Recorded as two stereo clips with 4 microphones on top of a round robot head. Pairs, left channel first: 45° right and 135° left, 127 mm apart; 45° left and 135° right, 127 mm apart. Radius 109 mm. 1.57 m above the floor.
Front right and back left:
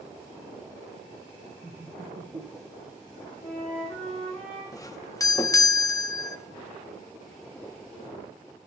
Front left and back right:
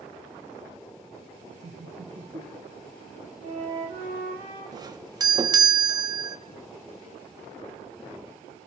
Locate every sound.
1.6 s laughter: 160° right, 0.7 m; by 3.3 s 175° left, 1.5 m
3.4 s a flute: 130° right, 4 m
4.7 s a doorbell: 95° right, 0.7 m